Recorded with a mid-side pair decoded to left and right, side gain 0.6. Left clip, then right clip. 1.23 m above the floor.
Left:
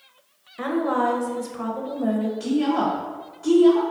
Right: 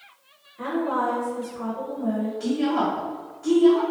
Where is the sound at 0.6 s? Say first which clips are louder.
Left 2 dB; 50° left, 0.7 m.